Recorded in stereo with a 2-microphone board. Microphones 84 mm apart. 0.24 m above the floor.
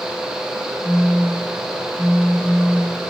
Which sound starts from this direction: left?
A phone buzzing, at 0.8 s.